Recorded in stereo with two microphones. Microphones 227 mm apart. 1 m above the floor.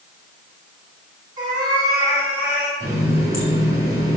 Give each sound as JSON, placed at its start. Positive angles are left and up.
{"t": 1.4, "sound": "a cat meowing", "side_deg": -20, "distance_m": 4.0}
{"t": 2.8, "sound": "a running tap", "side_deg": -15, "distance_m": 3.5}